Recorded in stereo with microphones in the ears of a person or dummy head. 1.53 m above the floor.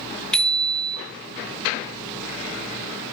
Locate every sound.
0.3 s a bicycle bell: 5° left (ahead or behind), 2.5 m